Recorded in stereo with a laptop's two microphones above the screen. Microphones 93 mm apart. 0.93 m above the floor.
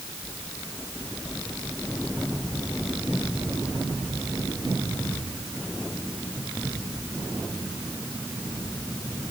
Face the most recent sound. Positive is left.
No sound to turn to.